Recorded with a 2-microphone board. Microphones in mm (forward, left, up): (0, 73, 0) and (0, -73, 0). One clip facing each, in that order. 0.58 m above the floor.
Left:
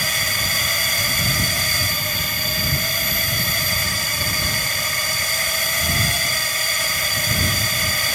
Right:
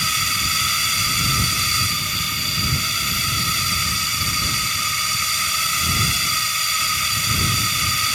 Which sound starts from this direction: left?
A drone, at 0.0 s.